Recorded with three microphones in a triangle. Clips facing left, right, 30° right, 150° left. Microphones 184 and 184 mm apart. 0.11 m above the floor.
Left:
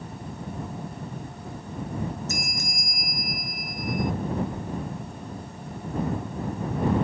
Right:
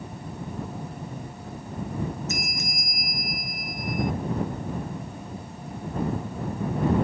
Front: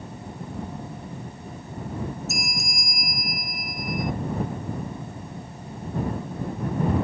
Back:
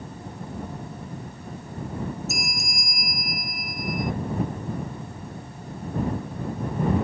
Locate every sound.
2.3 s a bell: 60° left